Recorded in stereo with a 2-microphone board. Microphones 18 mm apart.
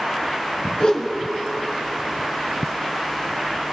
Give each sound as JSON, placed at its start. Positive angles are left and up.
{"t": 0.8, "sound": "a whoosh", "side_deg": 50, "distance_m": 1.7}